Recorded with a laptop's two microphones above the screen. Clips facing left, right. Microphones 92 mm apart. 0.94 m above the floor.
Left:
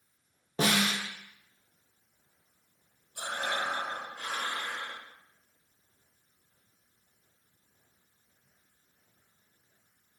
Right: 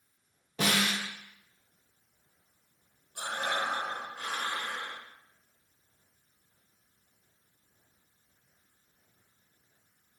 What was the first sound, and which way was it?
A snare drum, 35° left (ahead or behind).